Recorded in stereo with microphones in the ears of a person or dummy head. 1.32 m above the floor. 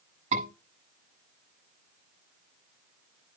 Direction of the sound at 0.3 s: 35° right (ahead or behind).